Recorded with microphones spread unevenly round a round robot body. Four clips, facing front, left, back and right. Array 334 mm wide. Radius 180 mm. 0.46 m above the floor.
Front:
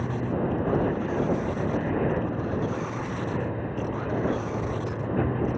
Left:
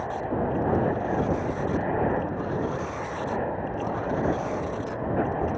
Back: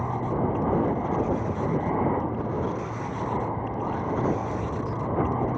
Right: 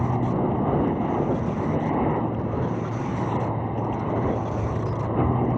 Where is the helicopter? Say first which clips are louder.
Right 3 dB, back 1 dB; 80° right.